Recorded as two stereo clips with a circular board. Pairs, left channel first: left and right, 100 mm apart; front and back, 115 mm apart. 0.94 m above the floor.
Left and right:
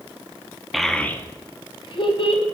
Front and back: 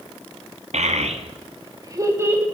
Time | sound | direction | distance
0.7 | a child speaking | straight behind | 0.6 m